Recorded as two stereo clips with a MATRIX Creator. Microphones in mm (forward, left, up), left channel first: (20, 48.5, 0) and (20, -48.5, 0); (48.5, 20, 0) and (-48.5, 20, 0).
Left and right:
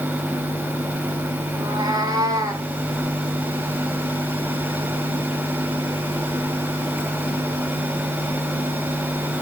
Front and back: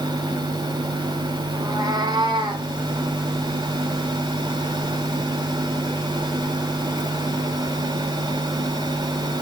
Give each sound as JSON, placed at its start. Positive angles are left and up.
{"t": 1.6, "sound": "a cat meowing", "azimuth_deg": -130, "distance_m": 2.0}